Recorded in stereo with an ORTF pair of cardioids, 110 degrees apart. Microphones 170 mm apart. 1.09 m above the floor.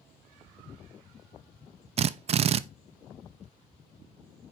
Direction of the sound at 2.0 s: 40° right.